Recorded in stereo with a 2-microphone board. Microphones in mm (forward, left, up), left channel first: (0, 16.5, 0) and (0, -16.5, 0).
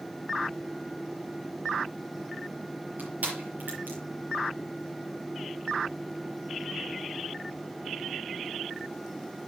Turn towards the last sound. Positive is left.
turn(degrees=-70)  # may be behind; listen again after turning